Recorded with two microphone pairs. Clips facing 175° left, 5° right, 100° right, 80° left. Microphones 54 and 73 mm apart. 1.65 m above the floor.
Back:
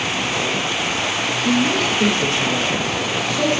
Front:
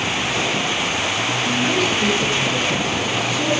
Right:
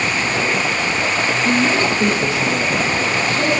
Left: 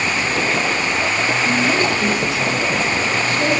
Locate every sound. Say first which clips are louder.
1.4 s a man speaking: back 3 dB, right 2 dB; 165° right, 3 m